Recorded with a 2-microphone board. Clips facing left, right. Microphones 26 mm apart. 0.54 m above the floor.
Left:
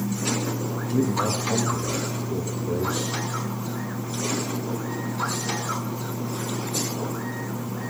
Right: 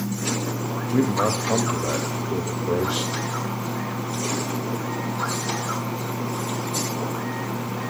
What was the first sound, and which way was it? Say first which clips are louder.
A man speaking: right 3 dB; 60° right (ahead or behind).